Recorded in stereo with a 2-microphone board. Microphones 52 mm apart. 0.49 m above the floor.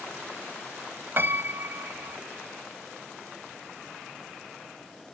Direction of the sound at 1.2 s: 45° right (ahead or behind).